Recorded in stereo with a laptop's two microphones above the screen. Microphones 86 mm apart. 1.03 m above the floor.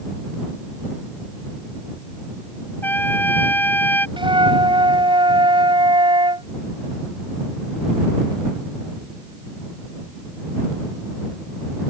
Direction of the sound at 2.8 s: 20° left (ahead or behind).